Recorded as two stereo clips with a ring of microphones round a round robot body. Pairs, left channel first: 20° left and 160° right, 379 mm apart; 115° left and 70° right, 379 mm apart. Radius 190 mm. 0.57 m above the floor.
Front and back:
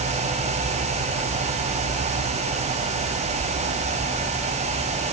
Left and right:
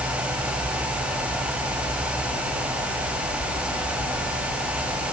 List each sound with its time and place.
Only background noise.